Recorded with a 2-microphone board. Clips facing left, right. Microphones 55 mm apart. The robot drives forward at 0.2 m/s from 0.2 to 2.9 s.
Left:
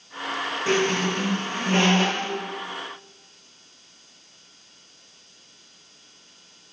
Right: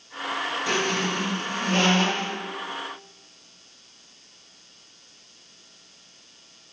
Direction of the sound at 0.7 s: 30° left (ahead or behind).